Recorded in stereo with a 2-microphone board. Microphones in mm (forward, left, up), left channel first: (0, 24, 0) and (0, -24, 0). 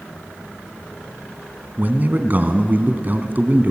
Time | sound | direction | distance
1.8 | a man speaking | 40° right (ahead or behind) | 1.9 m